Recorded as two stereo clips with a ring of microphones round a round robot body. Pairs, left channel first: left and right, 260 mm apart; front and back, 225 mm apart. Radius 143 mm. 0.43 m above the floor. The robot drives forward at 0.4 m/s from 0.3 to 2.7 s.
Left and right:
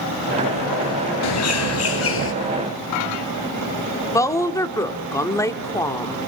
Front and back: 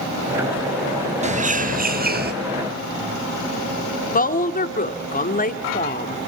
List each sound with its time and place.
1.2 s a bird: 120° left, 1.4 m; by 2.3 s 135° left, 1.6 m
4.1 s a woman speaking: 15° left, 1.4 m